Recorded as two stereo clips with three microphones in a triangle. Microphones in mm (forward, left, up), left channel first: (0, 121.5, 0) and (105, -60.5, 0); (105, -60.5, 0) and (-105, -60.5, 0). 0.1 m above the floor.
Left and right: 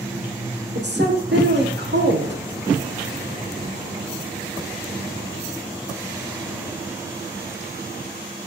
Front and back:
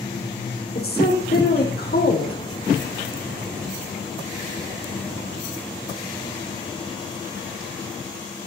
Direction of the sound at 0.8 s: 35° right.